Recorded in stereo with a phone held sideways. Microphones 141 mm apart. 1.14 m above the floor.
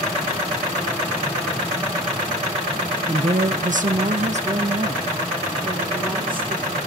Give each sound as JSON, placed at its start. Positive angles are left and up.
{"t": 3.1, "sound": "a woman speaking", "side_deg": -35, "distance_m": 0.7}